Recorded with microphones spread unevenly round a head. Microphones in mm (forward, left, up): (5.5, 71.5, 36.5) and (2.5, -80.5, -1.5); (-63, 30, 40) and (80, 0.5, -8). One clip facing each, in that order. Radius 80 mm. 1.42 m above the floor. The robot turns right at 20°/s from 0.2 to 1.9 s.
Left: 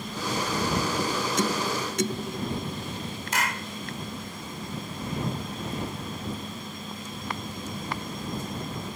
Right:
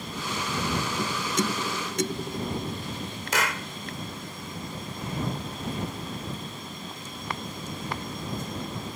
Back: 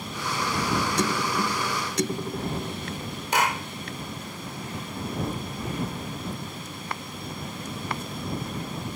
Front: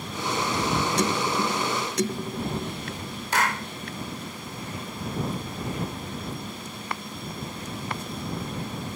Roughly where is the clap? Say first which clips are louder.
Right 2 dB, back 1 dB; behind right.